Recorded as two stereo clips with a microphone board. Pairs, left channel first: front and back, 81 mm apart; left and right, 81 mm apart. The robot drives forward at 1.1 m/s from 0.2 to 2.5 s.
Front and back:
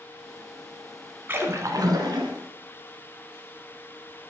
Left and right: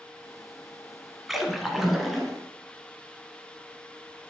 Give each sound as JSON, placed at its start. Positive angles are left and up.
{"t": 1.3, "sound": "a splash", "azimuth_deg": -175, "distance_m": 0.9}